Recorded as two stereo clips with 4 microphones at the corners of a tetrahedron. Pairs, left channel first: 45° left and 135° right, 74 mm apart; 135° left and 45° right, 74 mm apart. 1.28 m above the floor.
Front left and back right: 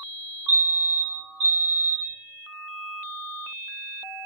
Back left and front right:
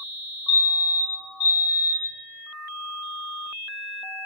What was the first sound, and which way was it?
A fire alarm, 105° right.